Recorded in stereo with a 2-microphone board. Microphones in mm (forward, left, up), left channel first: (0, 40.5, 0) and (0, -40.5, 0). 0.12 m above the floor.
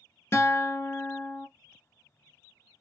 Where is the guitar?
35° left (ahead or behind), 0.5 m.